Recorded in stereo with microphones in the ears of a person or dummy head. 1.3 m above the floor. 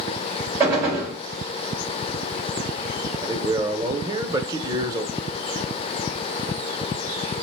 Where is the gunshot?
20° right (ahead or behind), 3.5 m.